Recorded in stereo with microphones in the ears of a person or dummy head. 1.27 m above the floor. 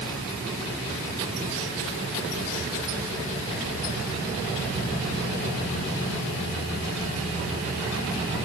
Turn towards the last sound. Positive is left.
No sound to turn to.